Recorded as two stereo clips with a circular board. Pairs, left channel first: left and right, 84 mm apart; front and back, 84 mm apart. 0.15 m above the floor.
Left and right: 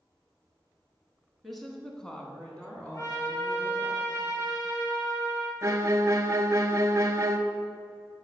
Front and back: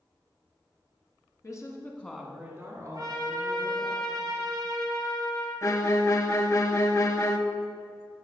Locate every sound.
1.4 s a woman speaking: straight ahead, 1.7 m; by 3.9 s 165° left, 3 m
2.9 s a trumpet: 135° left, 3 m
5.6 s a violin: 45° right, 0.7 m